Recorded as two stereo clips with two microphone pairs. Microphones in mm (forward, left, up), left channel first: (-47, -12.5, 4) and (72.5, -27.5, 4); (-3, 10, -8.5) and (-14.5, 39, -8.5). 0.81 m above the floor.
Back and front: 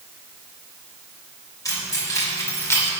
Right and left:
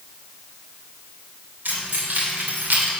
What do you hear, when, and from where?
1.6 s keys jangling: 110° left, 3 m; by 2.9 s 105° left, 2 m